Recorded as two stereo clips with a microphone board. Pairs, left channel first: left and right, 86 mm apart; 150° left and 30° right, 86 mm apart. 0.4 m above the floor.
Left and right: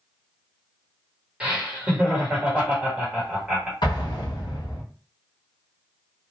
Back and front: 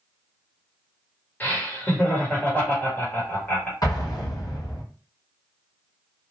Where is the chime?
No chime in this recording.